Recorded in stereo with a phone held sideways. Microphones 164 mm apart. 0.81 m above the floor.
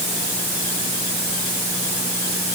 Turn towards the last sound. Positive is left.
No sound to turn to.